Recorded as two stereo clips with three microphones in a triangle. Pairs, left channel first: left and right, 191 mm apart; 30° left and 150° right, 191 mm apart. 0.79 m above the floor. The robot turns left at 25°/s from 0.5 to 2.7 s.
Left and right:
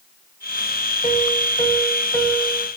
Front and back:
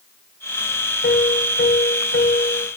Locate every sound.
1.0 s a piano: 40° left, 1.4 m; by 2.7 s straight ahead, 1.4 m